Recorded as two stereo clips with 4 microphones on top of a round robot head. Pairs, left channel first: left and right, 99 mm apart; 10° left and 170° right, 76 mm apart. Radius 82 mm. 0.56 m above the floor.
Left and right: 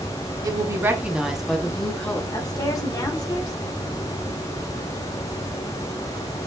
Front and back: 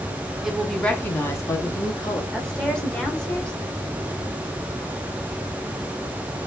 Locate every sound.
0.4 s a woman speaking: 90° right, 0.8 m; by 2.2 s 15° left, 1.2 m
2.3 s a woman speaking: 80° left, 1.2 m